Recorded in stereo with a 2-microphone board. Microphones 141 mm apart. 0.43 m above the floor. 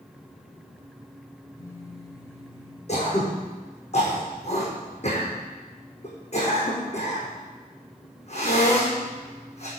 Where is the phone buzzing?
20° left (ahead or behind), 2.5 m.